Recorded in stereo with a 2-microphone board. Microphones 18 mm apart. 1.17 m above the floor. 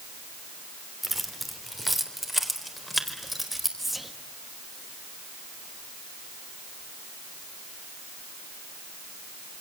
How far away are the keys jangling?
About 3 m.